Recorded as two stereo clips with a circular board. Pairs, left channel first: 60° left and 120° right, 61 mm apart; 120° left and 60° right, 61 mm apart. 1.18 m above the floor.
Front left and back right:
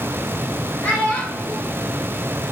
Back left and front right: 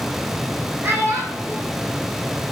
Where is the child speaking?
5° right, 0.6 m.